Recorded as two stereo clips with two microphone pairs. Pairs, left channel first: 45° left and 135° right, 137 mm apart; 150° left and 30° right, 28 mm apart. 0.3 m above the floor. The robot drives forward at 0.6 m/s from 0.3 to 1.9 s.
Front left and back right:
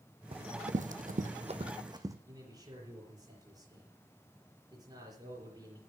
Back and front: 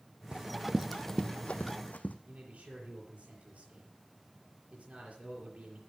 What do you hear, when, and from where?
0.3 s running footsteps: 85° right, 1.1 m; by 2.2 s 160° left, 1.3 m
2.3 s a man speaking: 75° right, 5.5 m